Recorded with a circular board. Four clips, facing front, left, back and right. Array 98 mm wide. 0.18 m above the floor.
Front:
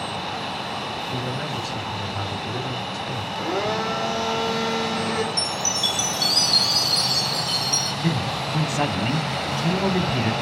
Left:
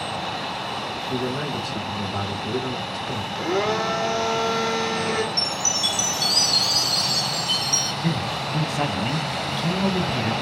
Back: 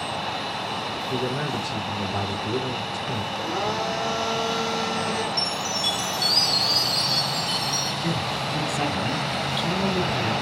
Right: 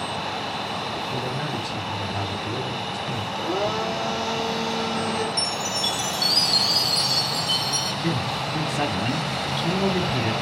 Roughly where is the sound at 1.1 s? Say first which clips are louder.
Left 2 dB, back 5 dB; behind left.